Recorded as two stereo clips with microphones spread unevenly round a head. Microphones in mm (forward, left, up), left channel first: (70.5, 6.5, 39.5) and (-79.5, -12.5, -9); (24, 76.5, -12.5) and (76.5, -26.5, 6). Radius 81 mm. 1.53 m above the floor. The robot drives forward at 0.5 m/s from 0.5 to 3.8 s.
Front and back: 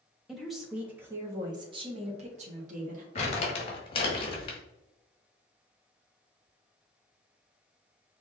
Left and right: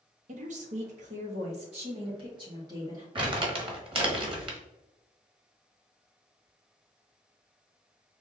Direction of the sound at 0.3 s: 80° right.